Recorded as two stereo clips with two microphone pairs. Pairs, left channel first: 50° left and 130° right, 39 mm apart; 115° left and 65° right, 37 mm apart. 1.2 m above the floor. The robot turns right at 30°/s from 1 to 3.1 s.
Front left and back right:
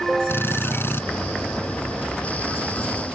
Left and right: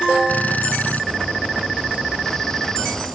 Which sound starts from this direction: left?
A drill, at 0.3 s.